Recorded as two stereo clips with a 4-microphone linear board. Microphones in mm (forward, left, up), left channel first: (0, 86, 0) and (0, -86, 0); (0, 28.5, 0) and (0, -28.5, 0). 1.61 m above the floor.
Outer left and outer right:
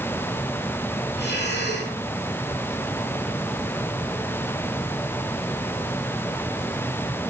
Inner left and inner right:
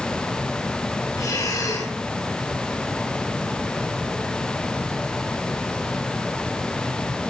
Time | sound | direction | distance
1.2 | breathing | 85° left | 9.5 m